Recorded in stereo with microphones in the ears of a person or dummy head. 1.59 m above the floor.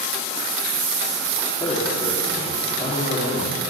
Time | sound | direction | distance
1.6 | a man speaking | 30° left (ahead or behind) | 4.5 m